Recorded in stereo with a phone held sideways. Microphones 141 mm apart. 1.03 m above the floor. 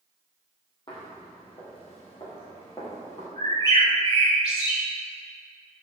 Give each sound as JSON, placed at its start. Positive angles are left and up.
{"t": 0.9, "sound": "footsteps", "side_deg": 40, "distance_m": 3.0}
{"t": 3.4, "sound": "a bird", "side_deg": 30, "distance_m": 2.5}